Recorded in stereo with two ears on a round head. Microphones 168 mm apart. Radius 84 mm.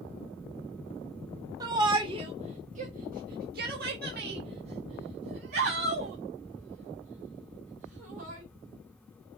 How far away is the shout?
About 1.6 m.